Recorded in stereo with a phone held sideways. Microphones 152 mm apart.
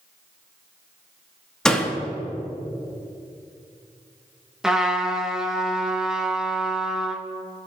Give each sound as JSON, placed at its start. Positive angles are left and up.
{"t": 1.6, "sound": "a door slam", "side_deg": 5, "distance_m": 1.5}
{"t": 4.6, "sound": "a trumpet", "side_deg": -5, "distance_m": 1.2}